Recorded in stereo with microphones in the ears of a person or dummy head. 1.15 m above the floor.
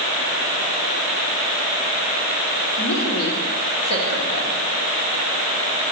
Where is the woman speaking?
85° left, 3 m.